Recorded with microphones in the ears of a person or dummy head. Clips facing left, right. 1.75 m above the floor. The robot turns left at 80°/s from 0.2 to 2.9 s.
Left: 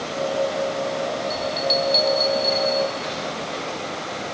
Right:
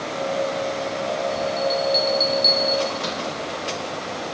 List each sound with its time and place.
1.3 s a bell: 60° left (ahead or behind), 4.5 m; by 3.2 s 65° right (ahead or behind), 4.5 m